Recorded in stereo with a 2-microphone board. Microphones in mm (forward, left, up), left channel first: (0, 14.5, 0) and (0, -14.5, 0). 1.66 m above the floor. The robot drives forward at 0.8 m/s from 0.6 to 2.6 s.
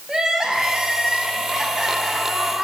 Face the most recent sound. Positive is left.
turn(degrees=-10)  # may be behind; listen again after turning